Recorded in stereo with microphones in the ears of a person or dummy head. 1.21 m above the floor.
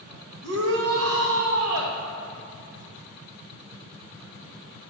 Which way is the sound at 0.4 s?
80° right.